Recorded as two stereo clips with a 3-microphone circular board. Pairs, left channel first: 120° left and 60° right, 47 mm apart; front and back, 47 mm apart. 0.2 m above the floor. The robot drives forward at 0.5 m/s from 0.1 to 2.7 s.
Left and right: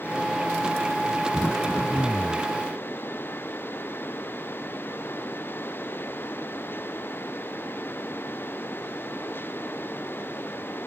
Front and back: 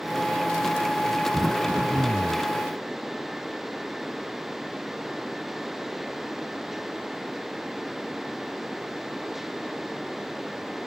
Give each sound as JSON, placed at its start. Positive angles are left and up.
{"t": 1.3, "sound": "throat clearing", "azimuth_deg": 140}